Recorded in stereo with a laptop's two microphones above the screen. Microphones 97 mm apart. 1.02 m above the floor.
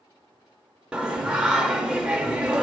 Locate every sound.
0.9 s singing: 10° right (ahead or behind), 0.7 m